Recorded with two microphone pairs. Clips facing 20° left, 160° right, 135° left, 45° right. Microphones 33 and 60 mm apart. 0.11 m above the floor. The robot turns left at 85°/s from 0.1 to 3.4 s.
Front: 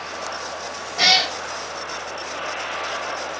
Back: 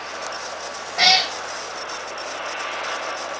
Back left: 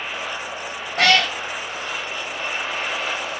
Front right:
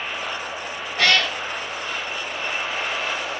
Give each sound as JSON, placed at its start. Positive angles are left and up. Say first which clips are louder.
{"t": 1.0, "sound": "a cat meowing", "louder": "even, back left 2 dB", "azimuth_deg": 145, "distance_m": 1.6}